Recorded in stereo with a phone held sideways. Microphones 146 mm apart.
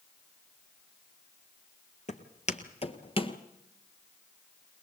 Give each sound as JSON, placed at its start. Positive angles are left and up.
{"t": 2.1, "sound": "footsteps", "side_deg": 55, "distance_m": 1.9}